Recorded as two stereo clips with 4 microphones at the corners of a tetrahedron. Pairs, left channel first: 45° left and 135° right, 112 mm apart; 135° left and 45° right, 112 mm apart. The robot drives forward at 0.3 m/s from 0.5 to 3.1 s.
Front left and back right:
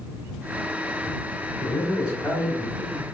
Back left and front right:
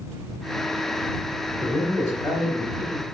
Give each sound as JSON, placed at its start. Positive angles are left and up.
{"t": 1.6, "sound": "a man speaking", "azimuth_deg": 150, "distance_m": 1.6}